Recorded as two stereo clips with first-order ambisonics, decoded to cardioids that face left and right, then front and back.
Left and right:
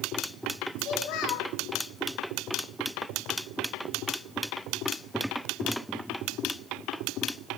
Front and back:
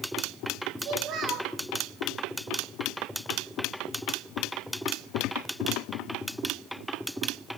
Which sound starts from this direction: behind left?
A child speaking, at 0.8 s.